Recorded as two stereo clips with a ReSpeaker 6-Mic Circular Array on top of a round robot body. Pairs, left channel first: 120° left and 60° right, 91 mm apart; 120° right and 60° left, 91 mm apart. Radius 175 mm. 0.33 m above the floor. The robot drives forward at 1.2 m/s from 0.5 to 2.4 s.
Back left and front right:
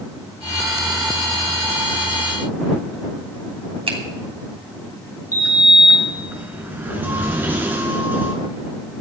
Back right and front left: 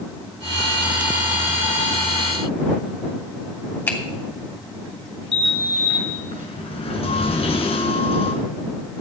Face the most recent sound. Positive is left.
turn(degrees=-130)